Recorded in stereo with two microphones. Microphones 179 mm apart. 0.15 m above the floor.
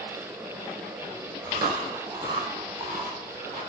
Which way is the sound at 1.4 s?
20° right (ahead or behind).